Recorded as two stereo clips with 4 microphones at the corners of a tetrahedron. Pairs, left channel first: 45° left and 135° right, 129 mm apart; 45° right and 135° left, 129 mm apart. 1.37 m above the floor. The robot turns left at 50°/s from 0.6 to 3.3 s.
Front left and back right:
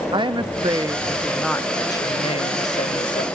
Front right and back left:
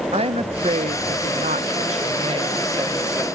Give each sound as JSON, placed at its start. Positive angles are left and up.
{"t": 0.1, "sound": "a woman speaking", "azimuth_deg": 175, "distance_m": 0.8}